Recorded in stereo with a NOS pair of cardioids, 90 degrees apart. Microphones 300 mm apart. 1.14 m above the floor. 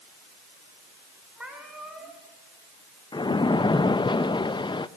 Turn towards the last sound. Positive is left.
turn(degrees=15)